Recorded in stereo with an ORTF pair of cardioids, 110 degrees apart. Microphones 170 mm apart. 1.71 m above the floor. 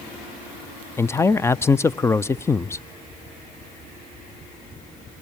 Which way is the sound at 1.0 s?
15° left.